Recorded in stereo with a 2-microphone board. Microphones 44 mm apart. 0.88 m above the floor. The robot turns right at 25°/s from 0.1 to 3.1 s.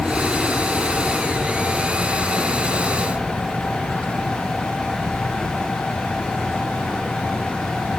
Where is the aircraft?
Centre (ahead or behind); by 8.0 s 75° right (ahead or behind).